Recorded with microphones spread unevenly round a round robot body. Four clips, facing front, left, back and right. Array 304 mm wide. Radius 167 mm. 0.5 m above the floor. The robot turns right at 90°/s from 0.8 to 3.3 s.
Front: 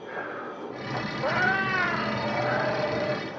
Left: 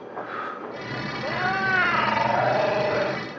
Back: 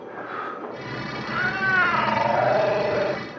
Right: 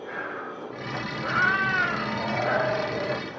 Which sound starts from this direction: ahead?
A cat meowing, at 1.2 s.